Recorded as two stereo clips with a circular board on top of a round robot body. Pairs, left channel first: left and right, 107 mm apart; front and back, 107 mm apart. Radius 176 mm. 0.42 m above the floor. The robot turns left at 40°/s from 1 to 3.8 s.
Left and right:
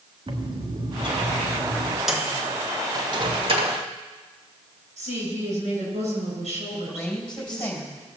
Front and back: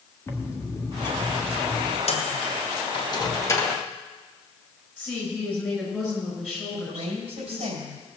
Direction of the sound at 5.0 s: 95° right.